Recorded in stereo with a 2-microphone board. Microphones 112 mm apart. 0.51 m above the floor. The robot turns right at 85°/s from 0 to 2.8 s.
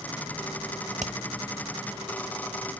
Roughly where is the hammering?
Right.